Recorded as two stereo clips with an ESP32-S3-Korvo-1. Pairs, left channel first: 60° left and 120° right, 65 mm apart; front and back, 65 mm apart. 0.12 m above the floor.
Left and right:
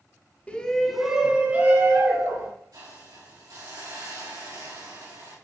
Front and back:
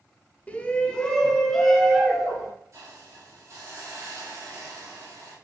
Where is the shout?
30° left, 1.2 m; by 2.5 s 100° right, 1.8 m.